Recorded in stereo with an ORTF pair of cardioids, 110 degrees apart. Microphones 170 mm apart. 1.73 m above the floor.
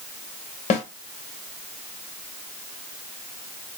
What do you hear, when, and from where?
0.7 s a snare drum: 40° left, 2.0 m